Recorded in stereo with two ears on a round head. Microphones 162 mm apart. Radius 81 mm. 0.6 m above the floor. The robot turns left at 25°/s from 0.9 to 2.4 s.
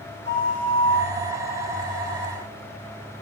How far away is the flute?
About 2.5 m.